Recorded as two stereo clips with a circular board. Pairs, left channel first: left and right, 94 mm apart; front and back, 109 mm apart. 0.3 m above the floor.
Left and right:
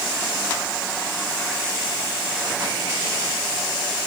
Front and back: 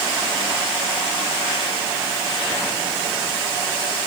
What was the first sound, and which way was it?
Only background noise.